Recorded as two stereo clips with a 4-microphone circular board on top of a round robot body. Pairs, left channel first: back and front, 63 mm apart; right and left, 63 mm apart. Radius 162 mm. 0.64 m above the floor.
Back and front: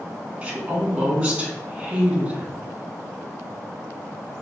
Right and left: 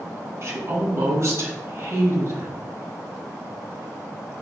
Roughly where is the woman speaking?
Left.